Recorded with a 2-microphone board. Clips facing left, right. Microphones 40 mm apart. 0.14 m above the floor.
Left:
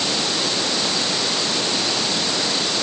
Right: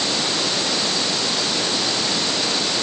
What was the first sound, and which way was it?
Only background noise.